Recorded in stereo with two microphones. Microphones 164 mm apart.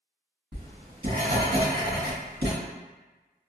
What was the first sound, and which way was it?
Writing, 70° right (ahead or behind).